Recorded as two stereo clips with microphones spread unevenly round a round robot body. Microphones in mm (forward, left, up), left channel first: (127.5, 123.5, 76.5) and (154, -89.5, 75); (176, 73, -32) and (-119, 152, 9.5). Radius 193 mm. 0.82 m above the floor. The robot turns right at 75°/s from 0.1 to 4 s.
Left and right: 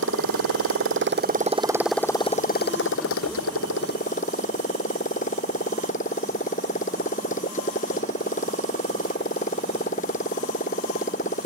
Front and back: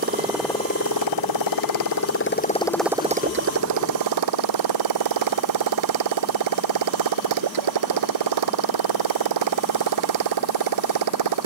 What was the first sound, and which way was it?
A motorcycle, 130° right.